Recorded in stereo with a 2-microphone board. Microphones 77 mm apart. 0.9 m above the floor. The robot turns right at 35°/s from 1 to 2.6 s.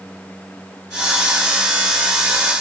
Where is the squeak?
I don't hear a squeak.